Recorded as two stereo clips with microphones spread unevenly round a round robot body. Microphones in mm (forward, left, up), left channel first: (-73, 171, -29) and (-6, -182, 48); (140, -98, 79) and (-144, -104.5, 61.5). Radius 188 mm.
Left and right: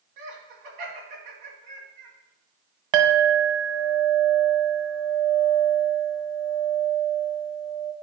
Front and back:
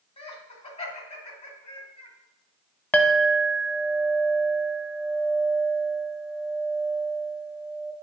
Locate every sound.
0.2 s laughter: 70° right, 3 m
2.9 s a clink: 85° right, 1.1 m